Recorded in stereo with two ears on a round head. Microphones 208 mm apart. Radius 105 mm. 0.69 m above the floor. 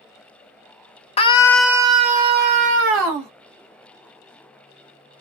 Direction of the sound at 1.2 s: 25° left (ahead or behind).